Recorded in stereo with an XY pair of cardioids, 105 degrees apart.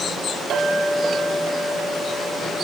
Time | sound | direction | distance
0.5 | a clink | 70° right | 2.0 m